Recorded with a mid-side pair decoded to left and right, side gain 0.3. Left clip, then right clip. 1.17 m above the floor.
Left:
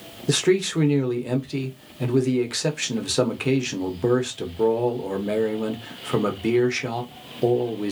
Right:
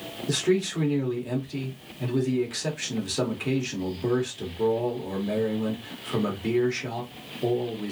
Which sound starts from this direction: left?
A man speaking, at 0.3 s.